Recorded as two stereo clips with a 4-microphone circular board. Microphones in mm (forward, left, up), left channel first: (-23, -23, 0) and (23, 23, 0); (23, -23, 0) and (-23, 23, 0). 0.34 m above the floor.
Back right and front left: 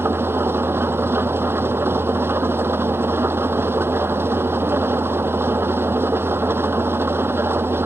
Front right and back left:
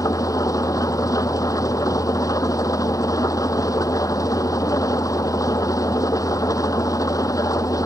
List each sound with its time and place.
0.0 s an engine running: 10° right